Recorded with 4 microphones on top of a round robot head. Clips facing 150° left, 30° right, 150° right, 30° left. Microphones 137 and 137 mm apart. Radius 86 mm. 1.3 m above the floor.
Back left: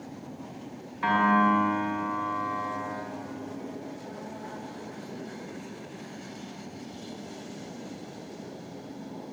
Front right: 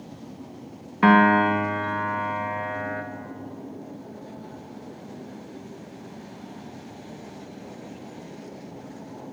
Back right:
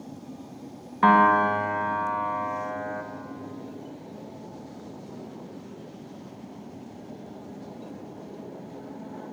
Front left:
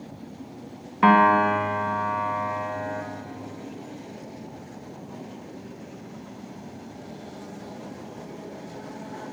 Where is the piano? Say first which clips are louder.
Front right 6 dB, front left 1 dB; 50° right, 1.8 m.